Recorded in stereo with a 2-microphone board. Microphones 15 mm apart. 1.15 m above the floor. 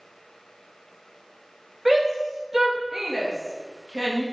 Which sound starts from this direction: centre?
A shout, at 1.9 s.